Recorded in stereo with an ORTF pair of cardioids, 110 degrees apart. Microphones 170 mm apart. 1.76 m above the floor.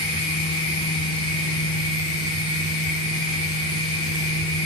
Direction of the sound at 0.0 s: 30° left.